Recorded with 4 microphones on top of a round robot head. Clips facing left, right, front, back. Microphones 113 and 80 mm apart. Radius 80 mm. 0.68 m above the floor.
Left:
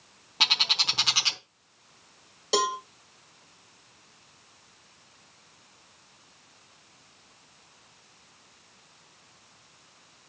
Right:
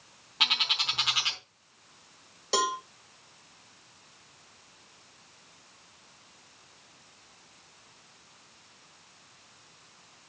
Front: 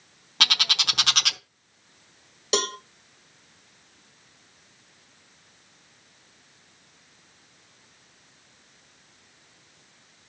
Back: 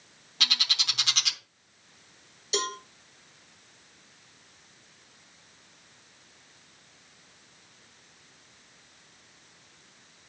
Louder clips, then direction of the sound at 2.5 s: Left 2 dB, front 4 dB; 15° left.